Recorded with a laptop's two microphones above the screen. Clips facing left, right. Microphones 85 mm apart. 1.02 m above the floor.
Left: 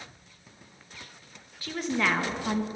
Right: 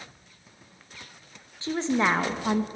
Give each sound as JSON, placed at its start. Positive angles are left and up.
{"t": 1.6, "sound": "a woman speaking", "side_deg": -25, "distance_m": 1.1}